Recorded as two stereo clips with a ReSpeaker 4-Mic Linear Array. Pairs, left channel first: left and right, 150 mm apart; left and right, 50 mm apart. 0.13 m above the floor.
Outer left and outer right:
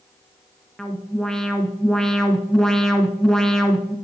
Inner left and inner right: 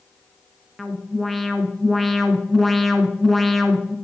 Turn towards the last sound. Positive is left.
turn(degrees=5)  # may be behind; listen again after turning